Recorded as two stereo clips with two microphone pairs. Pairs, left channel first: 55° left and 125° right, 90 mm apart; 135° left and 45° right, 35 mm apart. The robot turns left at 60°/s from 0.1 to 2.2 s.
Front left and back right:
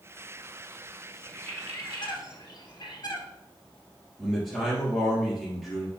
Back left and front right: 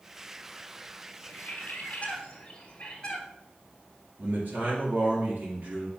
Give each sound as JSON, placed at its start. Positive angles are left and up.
{"t": 1.3, "sound": "a bird", "azimuth_deg": 125, "distance_m": 1.8}
{"t": 4.2, "sound": "a man speaking", "azimuth_deg": -35, "distance_m": 3.0}